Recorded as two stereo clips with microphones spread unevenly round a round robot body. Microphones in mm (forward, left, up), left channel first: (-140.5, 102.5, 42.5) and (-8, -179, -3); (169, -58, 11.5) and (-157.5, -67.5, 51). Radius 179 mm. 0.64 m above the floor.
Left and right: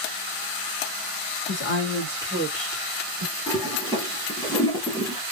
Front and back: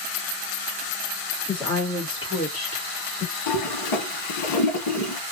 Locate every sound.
1.5 s a woman speaking: 85° left, 1.5 m; by 3.3 s 55° right, 1.7 m
3.5 s a toilet flushing: 35° left, 1.2 m